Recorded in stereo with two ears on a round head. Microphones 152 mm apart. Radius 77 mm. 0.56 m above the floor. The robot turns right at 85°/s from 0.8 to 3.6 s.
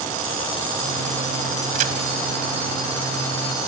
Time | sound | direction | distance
1.7 | a crack | 50° right (ahead or behind) | 2 m